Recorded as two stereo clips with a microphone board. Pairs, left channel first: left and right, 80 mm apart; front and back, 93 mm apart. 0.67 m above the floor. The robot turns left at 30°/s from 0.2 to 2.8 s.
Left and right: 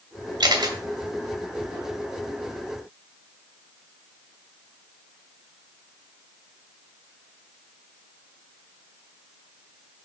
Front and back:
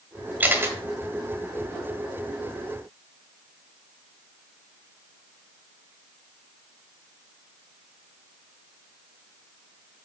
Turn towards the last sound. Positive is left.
turn(degrees=180)